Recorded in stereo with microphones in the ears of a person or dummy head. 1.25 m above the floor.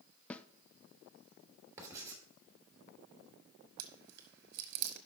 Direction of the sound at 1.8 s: 15° right (ahead or behind).